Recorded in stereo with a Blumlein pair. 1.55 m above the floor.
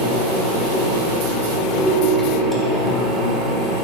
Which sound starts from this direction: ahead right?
A ringtone, at 1.8 s.